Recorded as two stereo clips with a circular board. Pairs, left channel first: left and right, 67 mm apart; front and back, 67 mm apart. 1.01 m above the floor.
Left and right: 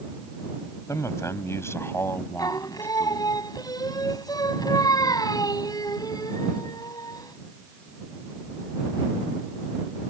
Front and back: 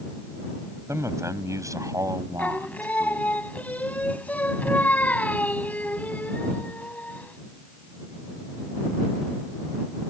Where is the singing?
65° left.